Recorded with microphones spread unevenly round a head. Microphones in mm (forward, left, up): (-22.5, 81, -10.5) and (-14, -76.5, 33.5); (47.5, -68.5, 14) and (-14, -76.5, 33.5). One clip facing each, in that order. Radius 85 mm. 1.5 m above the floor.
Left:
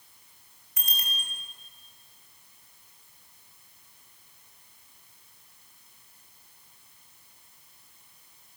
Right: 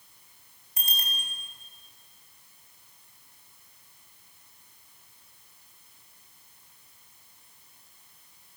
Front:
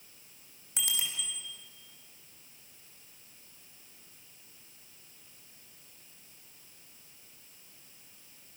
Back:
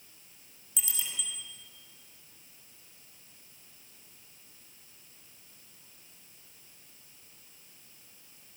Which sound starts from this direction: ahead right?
A bicycle bell, at 0.8 s.